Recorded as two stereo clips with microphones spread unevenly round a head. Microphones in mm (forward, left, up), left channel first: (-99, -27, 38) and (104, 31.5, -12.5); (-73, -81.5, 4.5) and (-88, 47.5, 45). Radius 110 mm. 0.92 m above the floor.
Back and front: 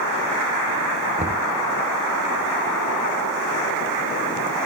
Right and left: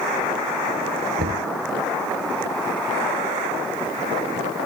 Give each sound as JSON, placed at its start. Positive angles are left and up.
{"t": 1.2, "sound": "knocking", "azimuth_deg": 75}